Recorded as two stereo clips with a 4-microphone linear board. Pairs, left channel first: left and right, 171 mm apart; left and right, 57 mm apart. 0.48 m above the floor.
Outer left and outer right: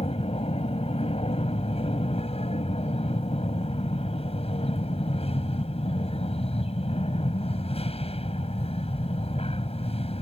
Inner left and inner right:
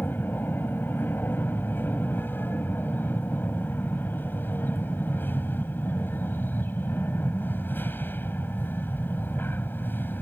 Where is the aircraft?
35° left (ahead or behind).